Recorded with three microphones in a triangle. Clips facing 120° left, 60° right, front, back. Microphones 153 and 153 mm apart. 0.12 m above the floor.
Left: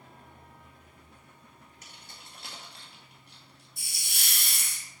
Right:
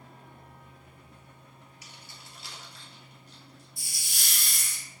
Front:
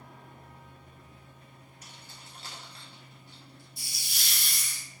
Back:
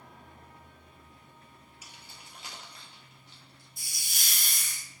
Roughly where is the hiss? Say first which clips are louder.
Left 2 dB, back 1 dB; behind left.